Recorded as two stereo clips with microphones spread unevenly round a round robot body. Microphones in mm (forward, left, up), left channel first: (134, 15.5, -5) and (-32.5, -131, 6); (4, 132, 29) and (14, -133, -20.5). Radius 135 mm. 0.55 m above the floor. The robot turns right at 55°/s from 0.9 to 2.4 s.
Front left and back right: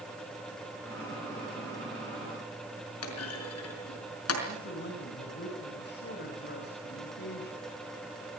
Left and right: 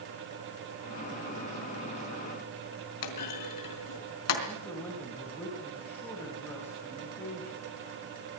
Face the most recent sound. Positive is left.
turn(degrees=5)